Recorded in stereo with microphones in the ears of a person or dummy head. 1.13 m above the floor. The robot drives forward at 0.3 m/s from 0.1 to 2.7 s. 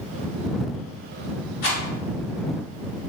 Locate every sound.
1.6 s a rattle: 70° left (ahead or behind), 1.5 m